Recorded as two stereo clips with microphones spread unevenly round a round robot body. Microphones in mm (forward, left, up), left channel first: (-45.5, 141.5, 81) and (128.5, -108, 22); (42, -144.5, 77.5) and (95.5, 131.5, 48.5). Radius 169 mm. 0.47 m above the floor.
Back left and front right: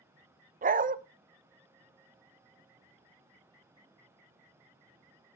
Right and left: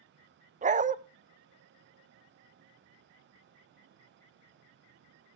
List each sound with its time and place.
0.6 s a dog barking: 10° left, 0.7 m